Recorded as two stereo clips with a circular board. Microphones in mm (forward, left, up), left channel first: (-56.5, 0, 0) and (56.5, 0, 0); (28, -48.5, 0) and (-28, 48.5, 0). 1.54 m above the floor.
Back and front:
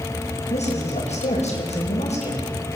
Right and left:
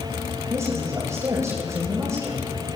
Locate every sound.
0.5 s a woman speaking: straight behind, 9.5 m